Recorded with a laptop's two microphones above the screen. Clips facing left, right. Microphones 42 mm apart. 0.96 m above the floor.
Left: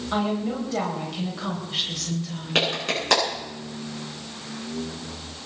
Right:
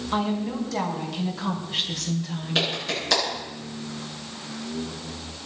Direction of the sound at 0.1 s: 30° left (ahead or behind).